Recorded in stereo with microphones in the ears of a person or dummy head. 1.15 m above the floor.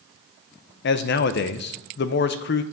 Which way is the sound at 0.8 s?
55° left (ahead or behind).